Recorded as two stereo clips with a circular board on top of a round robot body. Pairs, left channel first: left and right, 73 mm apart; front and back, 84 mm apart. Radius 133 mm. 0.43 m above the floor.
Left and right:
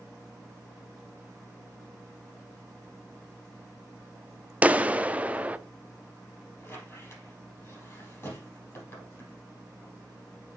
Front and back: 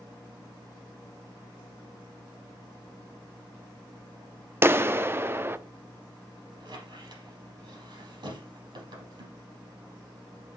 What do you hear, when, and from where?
4.6 s a clap: 145° right, 0.8 m
6.6 s a squeak: 150° left, 4 m